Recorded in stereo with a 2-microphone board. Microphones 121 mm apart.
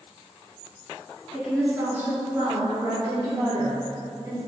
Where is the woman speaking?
5° right (ahead or behind), 1.6 m; by 4.4 s 25° right (ahead or behind), 3.5 m.